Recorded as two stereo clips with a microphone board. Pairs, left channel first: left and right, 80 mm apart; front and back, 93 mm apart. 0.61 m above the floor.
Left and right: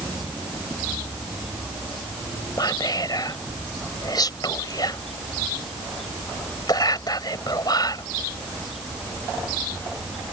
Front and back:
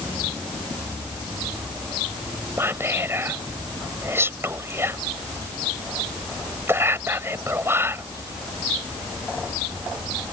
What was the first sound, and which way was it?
Whispering, 120° left.